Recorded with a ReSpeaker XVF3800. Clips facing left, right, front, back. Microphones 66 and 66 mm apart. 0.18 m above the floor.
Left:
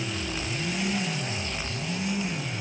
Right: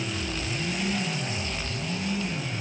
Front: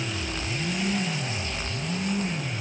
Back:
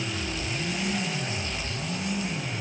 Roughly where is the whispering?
I don't hear whispering.